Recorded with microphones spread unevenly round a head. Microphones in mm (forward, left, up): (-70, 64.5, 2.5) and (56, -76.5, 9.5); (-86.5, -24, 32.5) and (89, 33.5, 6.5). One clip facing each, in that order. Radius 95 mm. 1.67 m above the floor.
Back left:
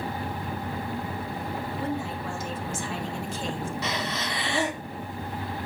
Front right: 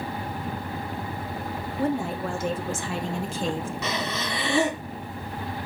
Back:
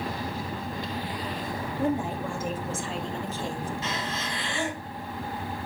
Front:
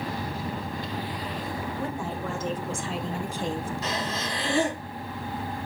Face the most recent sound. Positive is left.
turn(degrees=-40)